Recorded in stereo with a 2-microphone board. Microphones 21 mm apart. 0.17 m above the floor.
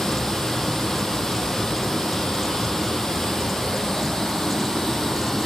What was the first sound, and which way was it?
Running water, 30° left (ahead or behind).